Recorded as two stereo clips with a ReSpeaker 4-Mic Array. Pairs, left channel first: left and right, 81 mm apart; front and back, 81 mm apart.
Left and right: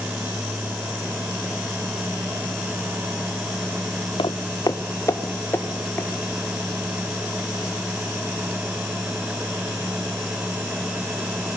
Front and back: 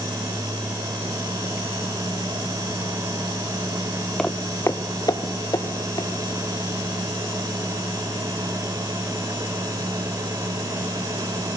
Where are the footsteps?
85° left, 0.9 m; by 6.1 s 25° left, 3 m.